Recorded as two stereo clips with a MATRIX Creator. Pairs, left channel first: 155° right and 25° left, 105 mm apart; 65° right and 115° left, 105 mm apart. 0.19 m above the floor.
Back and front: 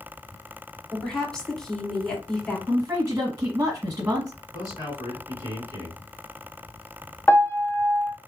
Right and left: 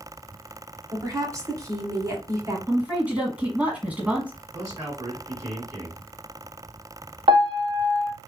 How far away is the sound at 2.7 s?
About 1.3 m.